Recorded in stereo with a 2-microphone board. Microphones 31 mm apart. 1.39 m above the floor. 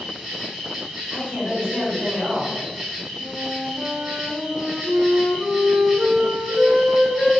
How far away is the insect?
About 1.2 m.